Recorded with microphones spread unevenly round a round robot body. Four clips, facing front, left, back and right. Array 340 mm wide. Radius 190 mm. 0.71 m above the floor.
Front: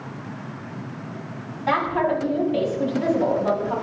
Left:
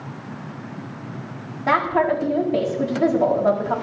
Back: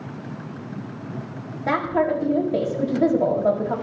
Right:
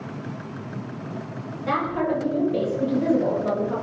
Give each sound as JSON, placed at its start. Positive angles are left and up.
{"t": 1.7, "sound": "a woman speaking", "azimuth_deg": 165, "distance_m": 4.5}